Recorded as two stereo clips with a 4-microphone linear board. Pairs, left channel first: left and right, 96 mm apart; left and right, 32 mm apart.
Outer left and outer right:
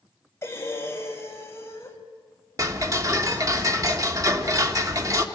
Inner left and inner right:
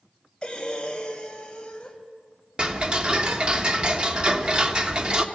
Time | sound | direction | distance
0.4 | breathing | 30° left (ahead or behind) | 2 m
2.6 | ticking | 35° right (ahead or behind) | 1.2 m